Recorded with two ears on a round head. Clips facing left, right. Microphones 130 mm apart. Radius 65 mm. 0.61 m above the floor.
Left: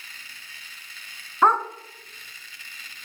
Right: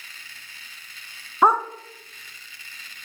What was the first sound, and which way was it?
A dog barking, 10° right (ahead or behind).